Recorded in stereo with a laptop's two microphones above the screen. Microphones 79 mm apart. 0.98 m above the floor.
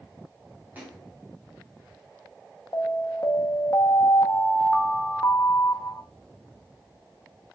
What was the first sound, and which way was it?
A splash, 20° right (ahead or behind).